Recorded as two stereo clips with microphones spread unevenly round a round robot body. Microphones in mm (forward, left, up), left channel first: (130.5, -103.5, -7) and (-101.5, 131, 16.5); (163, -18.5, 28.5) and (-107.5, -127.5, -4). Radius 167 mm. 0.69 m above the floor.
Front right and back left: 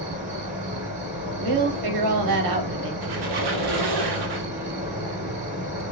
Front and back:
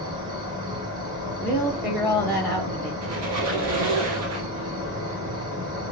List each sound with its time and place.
0.0 s an insect: 170° left, 3.5 m
1.4 s a woman speaking: 110° left, 1.5 m
3.0 s a squeak: 155° left, 1.8 m